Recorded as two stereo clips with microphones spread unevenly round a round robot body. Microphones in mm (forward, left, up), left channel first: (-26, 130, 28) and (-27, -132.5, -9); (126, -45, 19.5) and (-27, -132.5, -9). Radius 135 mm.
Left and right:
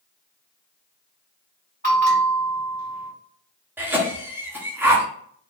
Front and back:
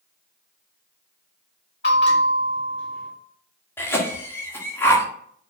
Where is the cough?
50° right, 1.1 m.